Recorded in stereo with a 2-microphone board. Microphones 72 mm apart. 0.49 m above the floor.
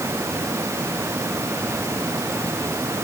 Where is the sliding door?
I don't hear a sliding door.